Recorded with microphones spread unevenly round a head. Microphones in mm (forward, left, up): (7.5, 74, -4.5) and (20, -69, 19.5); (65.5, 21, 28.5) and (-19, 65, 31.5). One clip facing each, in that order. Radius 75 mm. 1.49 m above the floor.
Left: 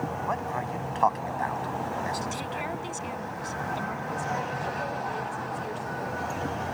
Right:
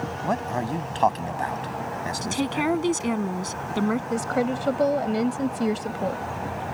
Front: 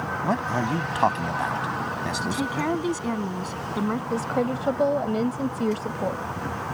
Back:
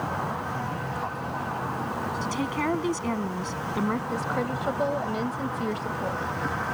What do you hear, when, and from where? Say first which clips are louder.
0.2 s a man speaking: right 4 dB, front 6 dB; 40° right; by 2.7 s 25° right
2.2 s a woman speaking: right 8 dB, front 2 dB; 110° right
4.1 s a woman speaking: right 7 dB, front 3 dB; 95° right